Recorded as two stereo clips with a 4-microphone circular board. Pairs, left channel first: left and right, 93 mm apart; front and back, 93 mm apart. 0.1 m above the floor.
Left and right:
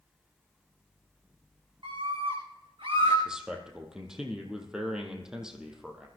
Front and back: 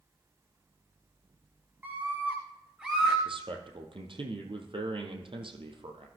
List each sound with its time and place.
1.8 s a scream: 110° right, 7.5 m; by 3.1 s 100° right, 8.5 m
3.2 s a man speaking: 175° right, 2.5 m